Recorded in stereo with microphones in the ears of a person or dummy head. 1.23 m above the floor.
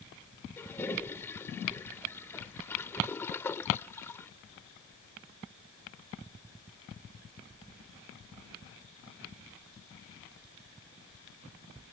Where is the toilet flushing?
10° left (ahead or behind).